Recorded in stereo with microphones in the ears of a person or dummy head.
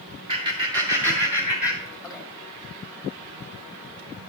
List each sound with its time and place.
0.3 s laughter: 25° right (ahead or behind), 3 m; by 2.2 s 5° left (ahead or behind), 1.9 m